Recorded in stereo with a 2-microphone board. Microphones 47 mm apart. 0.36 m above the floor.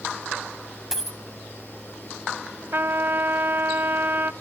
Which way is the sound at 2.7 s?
50° right (ahead or behind).